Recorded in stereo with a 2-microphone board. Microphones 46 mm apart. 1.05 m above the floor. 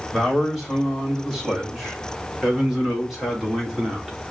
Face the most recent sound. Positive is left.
turn(degrees=-10)  # may be behind; listen again after turning